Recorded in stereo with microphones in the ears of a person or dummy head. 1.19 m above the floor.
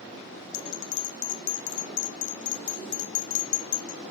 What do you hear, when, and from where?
0.5 s a bell: 45° left (ahead or behind), 0.7 m